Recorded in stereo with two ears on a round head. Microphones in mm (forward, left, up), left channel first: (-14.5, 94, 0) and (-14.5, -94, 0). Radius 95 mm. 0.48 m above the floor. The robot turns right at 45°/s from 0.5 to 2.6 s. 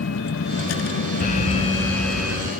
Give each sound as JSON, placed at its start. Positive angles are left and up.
{"t": 0.0, "sound": "a vehicle", "side_deg": 60}
{"t": 1.2, "sound": "an alarm", "azimuth_deg": 135}